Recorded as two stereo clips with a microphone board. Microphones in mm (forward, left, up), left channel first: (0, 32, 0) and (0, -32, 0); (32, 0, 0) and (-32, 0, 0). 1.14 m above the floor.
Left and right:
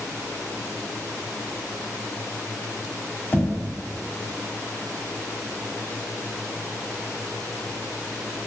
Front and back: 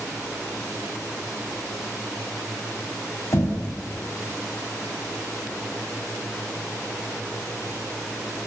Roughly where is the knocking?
Ahead left.